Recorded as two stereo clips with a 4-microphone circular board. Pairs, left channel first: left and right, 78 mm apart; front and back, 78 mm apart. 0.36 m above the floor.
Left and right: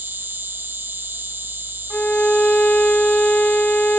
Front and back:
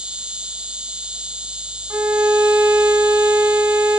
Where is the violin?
150° left, 0.9 m.